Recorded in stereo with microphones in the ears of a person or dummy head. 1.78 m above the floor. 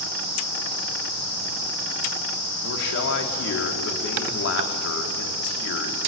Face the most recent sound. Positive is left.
turn(degrees=70)  # may be behind; listen again after turning